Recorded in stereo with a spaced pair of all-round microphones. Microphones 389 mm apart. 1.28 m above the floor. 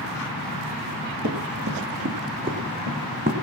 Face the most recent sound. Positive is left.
turn(degrees=-25)  # may be behind; listen again after turning